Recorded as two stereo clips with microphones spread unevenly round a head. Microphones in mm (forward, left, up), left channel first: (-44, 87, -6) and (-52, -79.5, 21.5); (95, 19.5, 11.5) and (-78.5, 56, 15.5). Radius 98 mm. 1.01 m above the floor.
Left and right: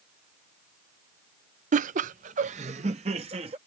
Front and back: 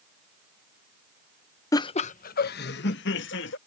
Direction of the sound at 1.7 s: 70° right.